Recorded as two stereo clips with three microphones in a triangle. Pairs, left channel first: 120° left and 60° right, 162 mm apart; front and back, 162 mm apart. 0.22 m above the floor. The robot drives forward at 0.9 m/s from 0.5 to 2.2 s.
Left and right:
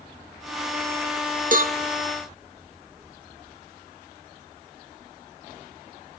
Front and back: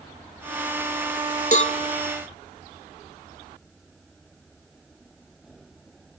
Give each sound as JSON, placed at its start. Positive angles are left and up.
{"t": 1.5, "sound": "a cowbell", "azimuth_deg": -35, "distance_m": 0.9}